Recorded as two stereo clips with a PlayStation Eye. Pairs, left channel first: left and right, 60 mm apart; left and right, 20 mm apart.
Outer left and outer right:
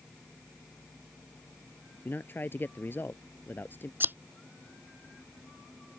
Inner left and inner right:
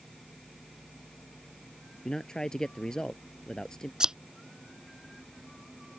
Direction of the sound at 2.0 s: 35° left (ahead or behind).